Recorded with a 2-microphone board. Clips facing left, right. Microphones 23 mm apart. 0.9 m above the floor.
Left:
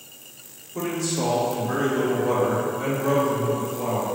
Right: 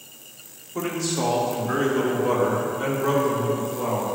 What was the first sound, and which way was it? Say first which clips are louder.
A man speaking: even; 25° right (ahead or behind).